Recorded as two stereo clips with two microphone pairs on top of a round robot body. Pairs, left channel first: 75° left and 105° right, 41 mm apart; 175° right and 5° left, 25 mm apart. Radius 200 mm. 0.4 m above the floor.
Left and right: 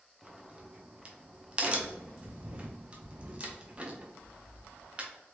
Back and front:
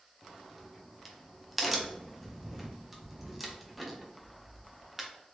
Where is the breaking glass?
No breaking glass in this recording.